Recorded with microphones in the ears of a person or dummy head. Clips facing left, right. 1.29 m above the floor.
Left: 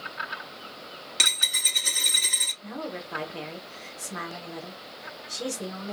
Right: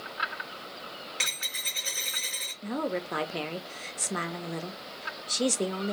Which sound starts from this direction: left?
A dropped coin, at 1.2 s.